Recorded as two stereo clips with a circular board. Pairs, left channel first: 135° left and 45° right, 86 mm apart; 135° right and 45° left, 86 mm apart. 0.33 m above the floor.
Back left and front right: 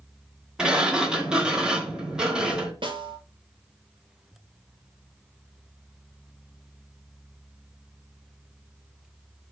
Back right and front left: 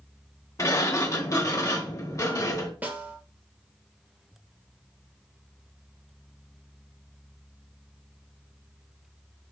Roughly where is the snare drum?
Ahead right.